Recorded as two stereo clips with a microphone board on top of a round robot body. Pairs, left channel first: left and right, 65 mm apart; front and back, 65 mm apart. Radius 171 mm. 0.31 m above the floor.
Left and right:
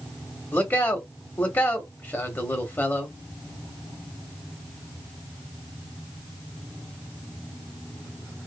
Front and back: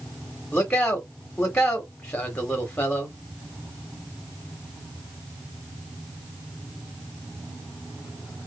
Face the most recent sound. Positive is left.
turn(degrees=60)